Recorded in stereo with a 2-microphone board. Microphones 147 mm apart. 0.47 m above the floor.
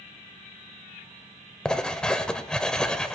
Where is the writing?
5° left (ahead or behind), 0.9 m.